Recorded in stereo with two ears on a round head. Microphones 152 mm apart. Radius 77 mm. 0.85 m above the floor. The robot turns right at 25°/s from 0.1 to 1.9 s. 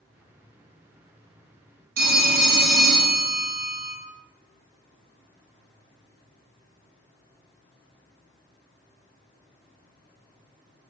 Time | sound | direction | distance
2.0 | a phone ringing | 60° right (ahead or behind) | 0.6 m